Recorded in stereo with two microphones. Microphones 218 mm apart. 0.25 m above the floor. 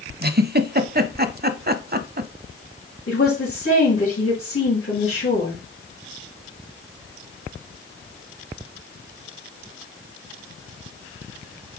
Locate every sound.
0.2 s a giggle: 45° right (ahead or behind), 0.6 m
3.1 s a woman speaking: 60° left (ahead or behind), 3 m